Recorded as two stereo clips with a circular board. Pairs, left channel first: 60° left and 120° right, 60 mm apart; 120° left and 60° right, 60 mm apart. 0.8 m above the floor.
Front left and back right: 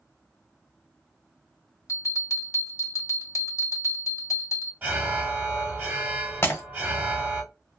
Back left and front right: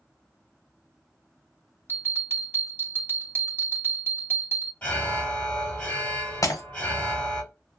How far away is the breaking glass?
About 0.8 m.